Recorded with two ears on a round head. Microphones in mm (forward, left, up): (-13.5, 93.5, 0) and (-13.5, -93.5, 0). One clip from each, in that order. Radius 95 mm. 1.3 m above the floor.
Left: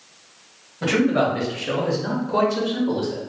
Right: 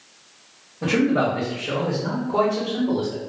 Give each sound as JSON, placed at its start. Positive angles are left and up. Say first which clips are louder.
{"t": 0.8, "sound": "a man speaking", "louder": "left 1 dB", "side_deg": 50, "distance_m": 1.3}